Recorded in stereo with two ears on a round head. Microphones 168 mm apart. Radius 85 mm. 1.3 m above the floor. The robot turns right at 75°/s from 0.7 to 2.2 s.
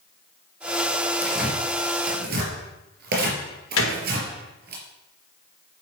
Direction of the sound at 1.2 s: 10° left (ahead or behind).